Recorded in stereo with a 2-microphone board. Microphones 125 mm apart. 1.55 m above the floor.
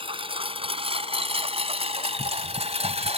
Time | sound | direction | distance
0.0 | a lawn mower | 45° right (ahead or behind) | ?